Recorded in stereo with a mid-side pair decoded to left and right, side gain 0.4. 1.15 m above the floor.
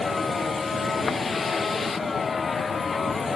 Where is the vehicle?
35° left; by 3.4 s 40° left.